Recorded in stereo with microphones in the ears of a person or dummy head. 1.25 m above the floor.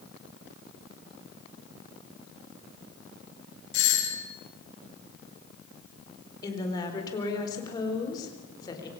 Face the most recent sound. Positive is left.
turn(degrees=25)  # may be behind; listen again after turning